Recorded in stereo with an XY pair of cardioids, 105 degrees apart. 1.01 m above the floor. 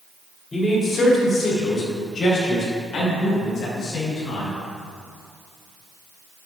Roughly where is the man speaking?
Ahead left.